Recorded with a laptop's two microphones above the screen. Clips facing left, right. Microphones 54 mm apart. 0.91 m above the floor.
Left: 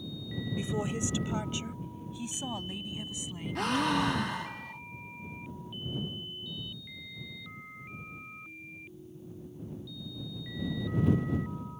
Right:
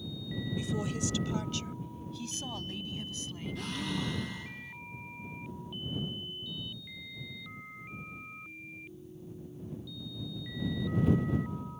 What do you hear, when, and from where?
0.6 s a woman speaking: 25° left (ahead or behind); by 4.3 s 10° left (ahead or behind)
3.5 s a gasp: 70° left (ahead or behind)